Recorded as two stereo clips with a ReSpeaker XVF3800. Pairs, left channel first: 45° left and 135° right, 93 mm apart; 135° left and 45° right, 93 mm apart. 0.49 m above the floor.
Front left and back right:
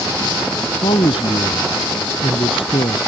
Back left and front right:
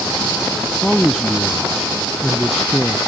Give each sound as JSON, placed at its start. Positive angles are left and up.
{"t": 0.8, "sound": "a man speaking", "azimuth_deg": 45}